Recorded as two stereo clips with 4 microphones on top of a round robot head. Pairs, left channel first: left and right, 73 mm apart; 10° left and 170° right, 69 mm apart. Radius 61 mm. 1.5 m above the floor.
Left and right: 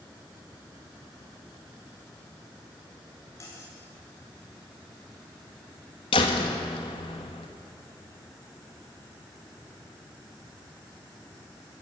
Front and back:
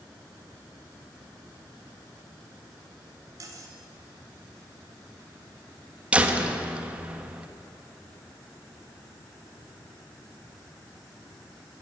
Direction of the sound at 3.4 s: 150° left.